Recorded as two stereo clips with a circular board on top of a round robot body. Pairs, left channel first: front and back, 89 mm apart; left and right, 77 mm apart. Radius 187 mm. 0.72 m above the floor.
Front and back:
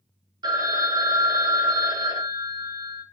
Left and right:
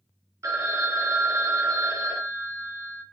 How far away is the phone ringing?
About 0.8 m.